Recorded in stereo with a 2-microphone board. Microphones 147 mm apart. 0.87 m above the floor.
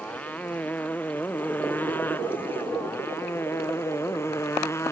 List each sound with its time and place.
0.0 s a motorcycle: 10° left (ahead or behind); by 4.9 s 15° left (ahead or behind)